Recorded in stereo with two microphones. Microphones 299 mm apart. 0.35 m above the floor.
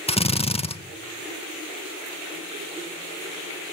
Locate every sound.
0.1 s a drill: 20° left (ahead or behind), 0.7 m